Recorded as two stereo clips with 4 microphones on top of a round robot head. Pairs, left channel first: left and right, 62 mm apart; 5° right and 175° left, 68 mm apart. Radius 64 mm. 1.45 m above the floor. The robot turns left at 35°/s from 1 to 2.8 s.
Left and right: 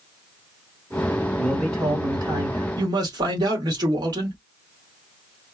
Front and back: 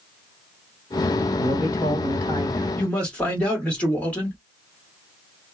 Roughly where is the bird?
No bird in this recording.